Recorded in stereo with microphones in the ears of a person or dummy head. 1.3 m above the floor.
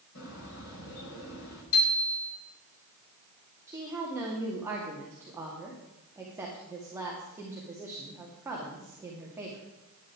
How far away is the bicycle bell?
About 5.5 m.